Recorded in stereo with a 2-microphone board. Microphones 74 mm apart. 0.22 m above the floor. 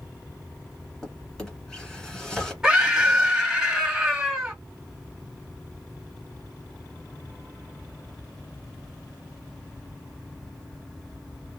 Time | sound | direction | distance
1.0 | a drawer | 5° left (ahead or behind) | 1.5 m
2.6 | a scream | 5° right (ahead or behind) | 1.3 m